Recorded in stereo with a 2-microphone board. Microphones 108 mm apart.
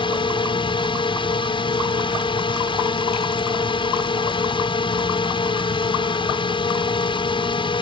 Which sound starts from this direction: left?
A drone, at 0.0 s.